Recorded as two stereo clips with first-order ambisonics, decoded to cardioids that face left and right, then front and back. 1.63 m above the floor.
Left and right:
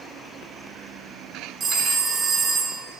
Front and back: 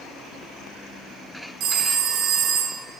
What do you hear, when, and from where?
1.6 s a phone ringing: 155° right, 0.8 m